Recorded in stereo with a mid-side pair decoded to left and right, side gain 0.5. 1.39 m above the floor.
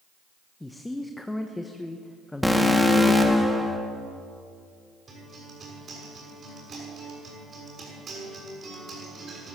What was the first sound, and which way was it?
A man speaking, 10° left.